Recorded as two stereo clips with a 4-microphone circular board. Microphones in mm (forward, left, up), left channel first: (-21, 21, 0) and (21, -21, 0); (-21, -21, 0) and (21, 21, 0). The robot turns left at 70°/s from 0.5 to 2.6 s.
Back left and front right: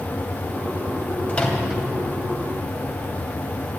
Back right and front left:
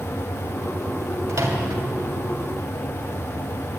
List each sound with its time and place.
1.3 s a microwave: 75° left, 2.5 m; by 1.8 s 40° left, 2.5 m